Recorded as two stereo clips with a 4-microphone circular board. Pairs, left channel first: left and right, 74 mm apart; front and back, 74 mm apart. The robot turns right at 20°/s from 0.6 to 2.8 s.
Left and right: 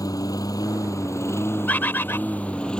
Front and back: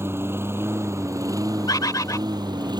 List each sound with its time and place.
0.0 s a lawn mower: 125° left; by 2.8 s 170° left
1.7 s a bird: 25° left; by 2.2 s 35° left